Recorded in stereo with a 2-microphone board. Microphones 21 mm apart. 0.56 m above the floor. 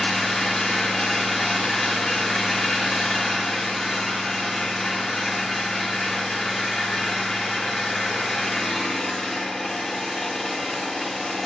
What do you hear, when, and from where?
0.0 s an engine running: 15° left (ahead or behind), 2.5 m